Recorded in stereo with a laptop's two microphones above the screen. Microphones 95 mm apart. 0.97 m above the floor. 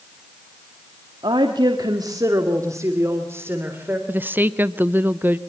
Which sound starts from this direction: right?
A woman speaking, at 1.2 s.